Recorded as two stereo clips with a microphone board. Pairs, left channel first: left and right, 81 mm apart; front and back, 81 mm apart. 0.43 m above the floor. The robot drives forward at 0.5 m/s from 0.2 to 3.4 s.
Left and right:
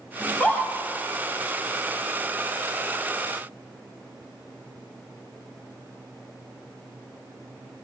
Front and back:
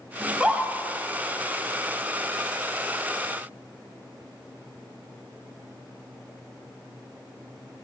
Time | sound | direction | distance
0.2 | a scream | 105° left | 0.9 m